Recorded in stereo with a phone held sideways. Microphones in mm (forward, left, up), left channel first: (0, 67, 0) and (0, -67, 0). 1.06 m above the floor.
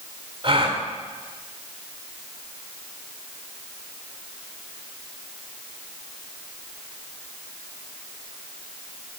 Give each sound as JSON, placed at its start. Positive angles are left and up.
{"t": 0.4, "sound": "a gasp", "side_deg": -45, "distance_m": 2.0}